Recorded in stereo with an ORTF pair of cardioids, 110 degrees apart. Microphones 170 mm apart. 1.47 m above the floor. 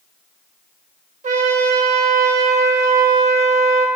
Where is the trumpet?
45° right, 1.6 m.